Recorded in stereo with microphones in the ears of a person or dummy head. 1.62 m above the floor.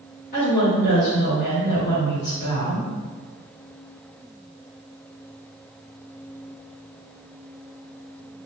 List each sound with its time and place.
0.3 s a woman speaking: 50° left (ahead or behind), 1.7 m